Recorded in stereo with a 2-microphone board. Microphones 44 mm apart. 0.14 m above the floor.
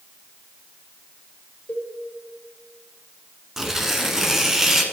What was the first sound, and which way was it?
A cowbell, 40° left (ahead or behind).